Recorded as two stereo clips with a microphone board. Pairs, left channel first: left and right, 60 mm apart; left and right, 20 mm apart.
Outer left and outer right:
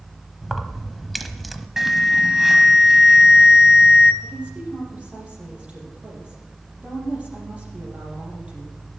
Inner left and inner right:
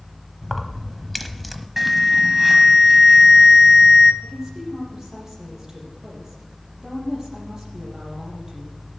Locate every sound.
0.4 s keys jangling: centre (ahead or behind), 1.0 m
1.8 s an alarm: 5° right (ahead or behind), 0.8 m
4.2 s a woman speaking: 20° right (ahead or behind), 6 m